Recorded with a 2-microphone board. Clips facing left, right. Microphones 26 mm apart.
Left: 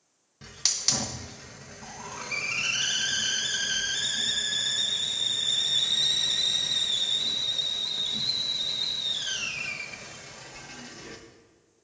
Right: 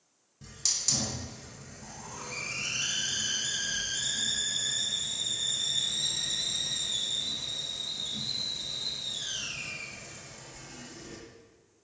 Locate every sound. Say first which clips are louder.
0.4 s a hiss: left 4 dB; 40° left (ahead or behind), 0.8 m